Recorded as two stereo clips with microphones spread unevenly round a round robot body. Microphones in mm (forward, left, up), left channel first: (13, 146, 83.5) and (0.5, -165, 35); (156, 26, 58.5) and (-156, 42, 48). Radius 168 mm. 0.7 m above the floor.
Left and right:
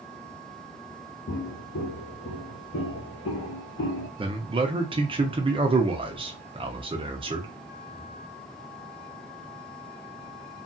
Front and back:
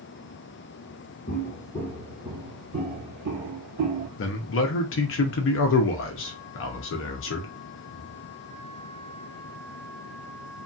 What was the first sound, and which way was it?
Footsteps, 50° left.